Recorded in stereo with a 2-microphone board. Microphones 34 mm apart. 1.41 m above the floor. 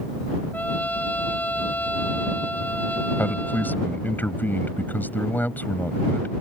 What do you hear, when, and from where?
0.5 s a trumpet: 55° left (ahead or behind)
3.2 s a man speaking: 60° left (ahead or behind)